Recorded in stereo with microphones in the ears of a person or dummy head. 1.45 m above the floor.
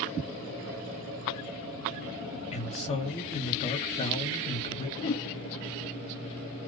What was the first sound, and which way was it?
A man speaking, 25° left (ahead or behind).